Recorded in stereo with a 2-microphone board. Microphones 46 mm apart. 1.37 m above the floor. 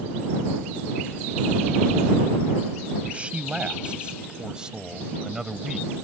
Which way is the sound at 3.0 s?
25° right (ahead or behind).